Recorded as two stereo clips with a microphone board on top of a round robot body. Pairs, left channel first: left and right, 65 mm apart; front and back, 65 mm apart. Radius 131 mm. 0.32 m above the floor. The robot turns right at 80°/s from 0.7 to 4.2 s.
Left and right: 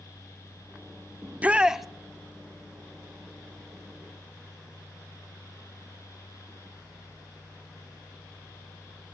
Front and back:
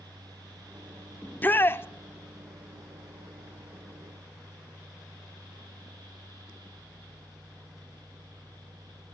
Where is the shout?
55° right, 0.9 m; by 1.9 s 5° right, 0.9 m.